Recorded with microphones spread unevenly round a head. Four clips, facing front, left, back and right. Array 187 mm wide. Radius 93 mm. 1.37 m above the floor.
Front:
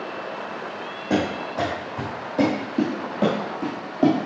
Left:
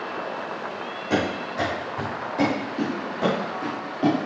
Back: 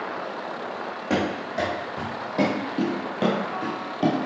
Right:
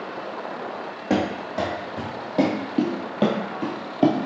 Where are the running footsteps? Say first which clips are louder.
Right 2 dB, front 2 dB; 105° right, 3.5 m; by 4.2 s 80° right, 1.6 m.